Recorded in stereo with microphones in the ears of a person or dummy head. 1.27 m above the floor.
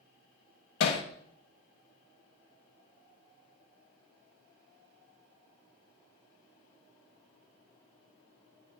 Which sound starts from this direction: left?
Hammering, at 0.8 s.